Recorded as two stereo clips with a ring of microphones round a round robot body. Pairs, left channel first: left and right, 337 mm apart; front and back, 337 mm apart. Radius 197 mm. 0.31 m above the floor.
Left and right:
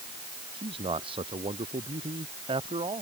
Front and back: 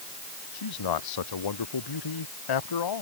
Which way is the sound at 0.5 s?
15° right.